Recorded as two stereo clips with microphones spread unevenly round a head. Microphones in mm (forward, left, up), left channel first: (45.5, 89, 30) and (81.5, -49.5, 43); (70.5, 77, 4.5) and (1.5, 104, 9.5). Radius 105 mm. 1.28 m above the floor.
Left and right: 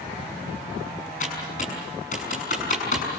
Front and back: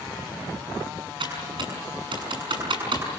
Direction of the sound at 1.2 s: 160° left.